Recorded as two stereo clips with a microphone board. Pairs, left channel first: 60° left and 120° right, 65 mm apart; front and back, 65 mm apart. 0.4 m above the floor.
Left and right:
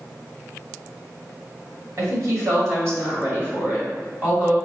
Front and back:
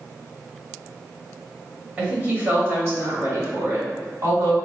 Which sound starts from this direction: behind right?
A woman speaking, at 2.0 s.